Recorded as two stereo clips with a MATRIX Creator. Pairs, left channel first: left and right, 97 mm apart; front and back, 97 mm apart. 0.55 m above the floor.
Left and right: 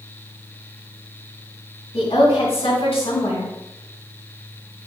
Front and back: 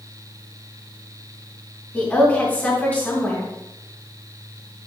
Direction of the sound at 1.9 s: 70° left.